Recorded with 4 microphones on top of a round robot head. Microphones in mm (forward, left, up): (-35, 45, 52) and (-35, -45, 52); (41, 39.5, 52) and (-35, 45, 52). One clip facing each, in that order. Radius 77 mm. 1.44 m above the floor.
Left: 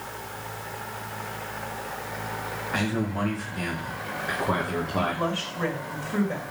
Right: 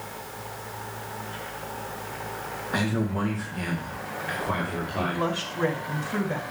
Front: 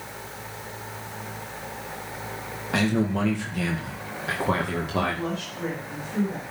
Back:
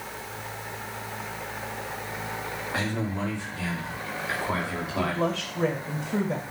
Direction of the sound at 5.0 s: 170° right.